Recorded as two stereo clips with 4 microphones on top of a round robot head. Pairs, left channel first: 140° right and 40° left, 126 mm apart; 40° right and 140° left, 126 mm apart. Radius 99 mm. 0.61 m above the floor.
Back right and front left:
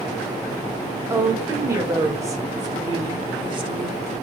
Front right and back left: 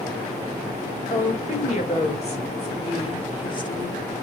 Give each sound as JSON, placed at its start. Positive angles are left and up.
{"t": 1.1, "sound": "a woman speaking", "azimuth_deg": -35, "distance_m": 3.0}